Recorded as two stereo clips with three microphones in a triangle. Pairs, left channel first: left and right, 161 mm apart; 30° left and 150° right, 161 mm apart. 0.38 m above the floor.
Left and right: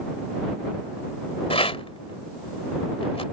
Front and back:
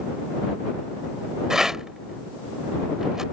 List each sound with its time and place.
1.5 s a rattle: 125° left